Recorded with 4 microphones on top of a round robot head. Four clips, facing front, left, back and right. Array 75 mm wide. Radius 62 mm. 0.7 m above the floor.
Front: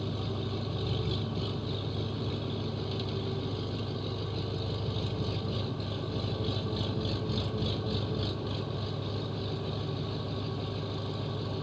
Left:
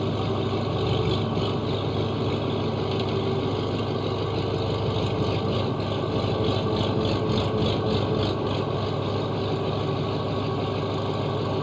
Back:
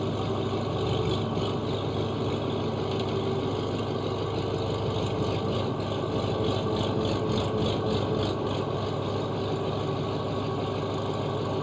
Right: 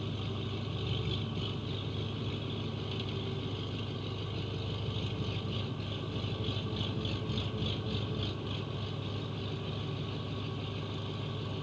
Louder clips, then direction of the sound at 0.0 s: Left 14 dB, back 7 dB; 120° left.